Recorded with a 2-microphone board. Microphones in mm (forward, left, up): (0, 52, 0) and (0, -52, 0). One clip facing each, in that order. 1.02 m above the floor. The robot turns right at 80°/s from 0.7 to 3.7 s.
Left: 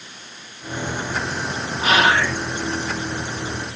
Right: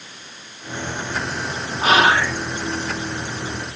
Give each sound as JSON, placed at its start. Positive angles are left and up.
{"t": 1.8, "sound": "whispering", "azimuth_deg": -55, "distance_m": 0.8}